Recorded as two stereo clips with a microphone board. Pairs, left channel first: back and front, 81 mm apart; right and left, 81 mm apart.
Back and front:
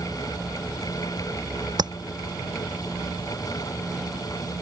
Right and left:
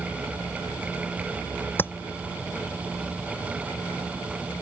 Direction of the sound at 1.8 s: 25° right.